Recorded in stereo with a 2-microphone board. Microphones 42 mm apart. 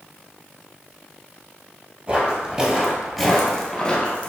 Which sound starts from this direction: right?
Footsteps, at 2.1 s.